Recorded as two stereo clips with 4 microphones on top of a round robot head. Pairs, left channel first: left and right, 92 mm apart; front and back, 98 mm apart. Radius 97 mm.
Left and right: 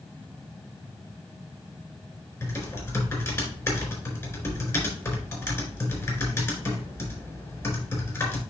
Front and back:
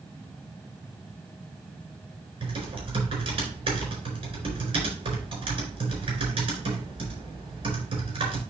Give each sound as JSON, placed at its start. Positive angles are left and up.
{"t": 2.4, "sound": "typing on a keyboard", "azimuth_deg": 150, "distance_m": 4.0}